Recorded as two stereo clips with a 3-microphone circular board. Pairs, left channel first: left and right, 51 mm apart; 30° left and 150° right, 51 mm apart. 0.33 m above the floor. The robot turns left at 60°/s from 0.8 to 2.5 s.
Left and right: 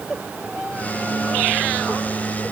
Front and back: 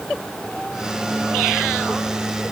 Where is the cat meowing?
No cat meowing in this recording.